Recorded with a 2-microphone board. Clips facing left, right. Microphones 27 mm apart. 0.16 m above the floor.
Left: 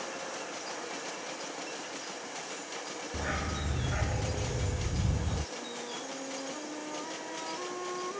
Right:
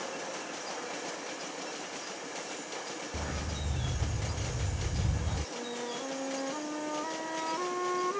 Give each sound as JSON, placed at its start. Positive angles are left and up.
{"t": 3.1, "sound": "a dog barking", "side_deg": 30}
{"t": 5.5, "sound": "a flute", "side_deg": -25}